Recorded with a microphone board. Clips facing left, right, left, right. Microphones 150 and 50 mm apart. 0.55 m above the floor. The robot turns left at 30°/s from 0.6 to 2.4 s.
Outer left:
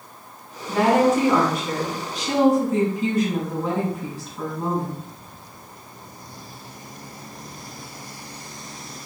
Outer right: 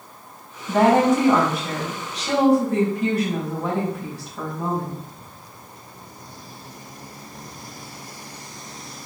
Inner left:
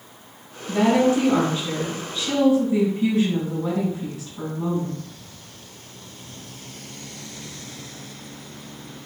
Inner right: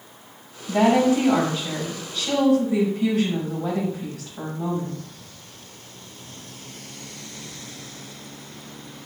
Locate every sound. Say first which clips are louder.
0.7 s a woman speaking: outer right 1 dB, even; 50° right, 3.5 m; by 5.0 s 105° right, 3.5 m